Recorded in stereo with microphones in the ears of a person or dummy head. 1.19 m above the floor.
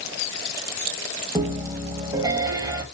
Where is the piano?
15° right (ahead or behind), 1.1 m.